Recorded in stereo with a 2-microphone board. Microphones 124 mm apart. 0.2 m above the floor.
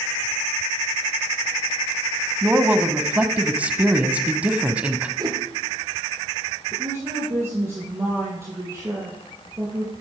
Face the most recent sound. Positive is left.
turn(degrees=-20)  # may be behind; listen again after turning